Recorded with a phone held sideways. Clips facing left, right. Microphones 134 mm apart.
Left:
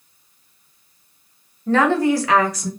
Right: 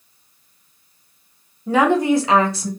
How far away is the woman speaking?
About 0.7 m.